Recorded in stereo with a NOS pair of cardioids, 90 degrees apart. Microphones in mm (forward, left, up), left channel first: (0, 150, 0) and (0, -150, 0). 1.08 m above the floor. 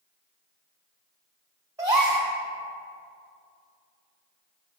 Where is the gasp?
10° right, 1.7 m.